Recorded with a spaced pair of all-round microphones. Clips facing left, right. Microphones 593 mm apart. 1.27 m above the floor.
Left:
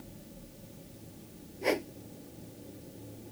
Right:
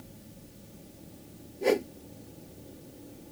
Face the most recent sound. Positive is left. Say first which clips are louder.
# right 5 dB
turn(degrees=-60)  # may be behind; listen again after turning